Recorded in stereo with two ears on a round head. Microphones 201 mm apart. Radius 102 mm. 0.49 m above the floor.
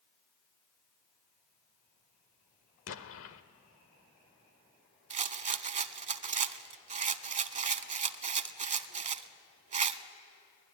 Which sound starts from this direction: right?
A rattle, at 5.1 s.